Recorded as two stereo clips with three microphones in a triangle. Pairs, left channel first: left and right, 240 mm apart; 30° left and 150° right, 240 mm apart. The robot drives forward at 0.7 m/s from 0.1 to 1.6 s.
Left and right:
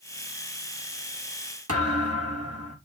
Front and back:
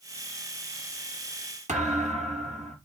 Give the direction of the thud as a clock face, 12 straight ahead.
3 o'clock.